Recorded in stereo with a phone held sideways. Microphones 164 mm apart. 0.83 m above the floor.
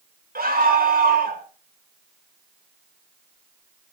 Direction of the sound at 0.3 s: 65° right (ahead or behind).